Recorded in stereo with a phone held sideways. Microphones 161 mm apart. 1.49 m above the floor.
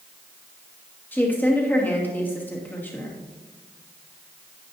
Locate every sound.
1.1 s a woman speaking: 10° left (ahead or behind), 2.5 m